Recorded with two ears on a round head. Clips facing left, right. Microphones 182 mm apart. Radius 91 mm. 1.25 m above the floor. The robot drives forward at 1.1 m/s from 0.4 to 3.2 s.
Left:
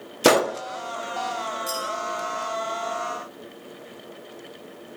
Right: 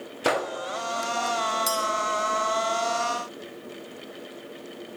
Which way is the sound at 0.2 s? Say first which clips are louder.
Left 8 dB; 55° left (ahead or behind).